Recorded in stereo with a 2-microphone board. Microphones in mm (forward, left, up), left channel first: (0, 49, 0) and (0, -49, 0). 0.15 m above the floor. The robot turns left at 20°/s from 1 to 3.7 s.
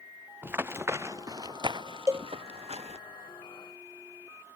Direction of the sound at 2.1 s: 25° right (ahead or behind).